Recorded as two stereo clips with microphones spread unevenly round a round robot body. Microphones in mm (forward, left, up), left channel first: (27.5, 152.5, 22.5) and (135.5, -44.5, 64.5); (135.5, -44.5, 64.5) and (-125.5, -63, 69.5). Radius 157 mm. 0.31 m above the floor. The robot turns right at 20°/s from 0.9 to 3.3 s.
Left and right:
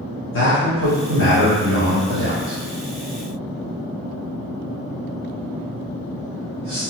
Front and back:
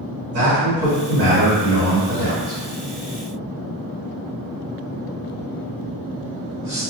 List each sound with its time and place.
0.3 s a man speaking: 125° left, 1.8 m; by 6.8 s 170° left, 1.8 m